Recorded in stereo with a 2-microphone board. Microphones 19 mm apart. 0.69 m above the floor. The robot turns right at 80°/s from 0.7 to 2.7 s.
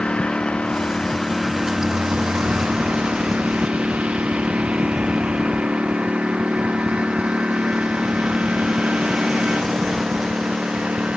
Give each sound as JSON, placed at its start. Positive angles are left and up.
{"t": 0.0, "sound": "a lawn mower", "azimuth_deg": 115}